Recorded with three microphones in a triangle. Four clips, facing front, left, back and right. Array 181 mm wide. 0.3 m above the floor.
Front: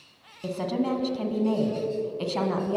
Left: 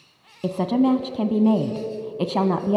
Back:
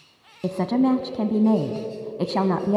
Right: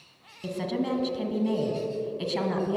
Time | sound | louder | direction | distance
0.4 | a woman speaking | left 9 dB, back 7 dB | 125° left | 1.9 m